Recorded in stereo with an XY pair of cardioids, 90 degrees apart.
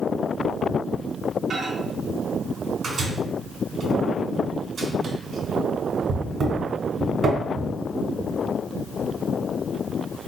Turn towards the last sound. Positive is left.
turn(degrees=-55)